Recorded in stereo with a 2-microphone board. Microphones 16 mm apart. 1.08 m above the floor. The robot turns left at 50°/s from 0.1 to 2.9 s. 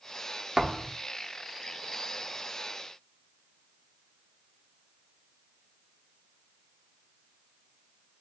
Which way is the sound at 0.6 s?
45° right (ahead or behind).